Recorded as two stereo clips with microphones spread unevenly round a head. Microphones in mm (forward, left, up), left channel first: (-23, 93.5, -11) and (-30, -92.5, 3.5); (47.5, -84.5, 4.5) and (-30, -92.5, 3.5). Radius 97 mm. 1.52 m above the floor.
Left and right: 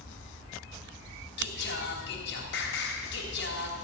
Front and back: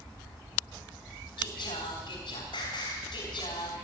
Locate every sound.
1.4 s singing: 50° left, 3 m